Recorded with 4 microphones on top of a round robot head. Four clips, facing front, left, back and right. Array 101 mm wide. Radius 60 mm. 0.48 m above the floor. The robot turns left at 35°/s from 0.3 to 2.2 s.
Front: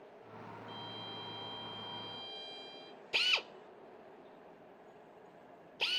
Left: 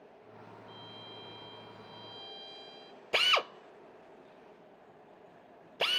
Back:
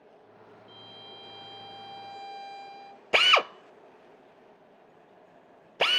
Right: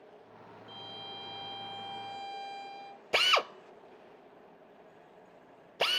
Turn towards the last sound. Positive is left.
turn(degrees=-170)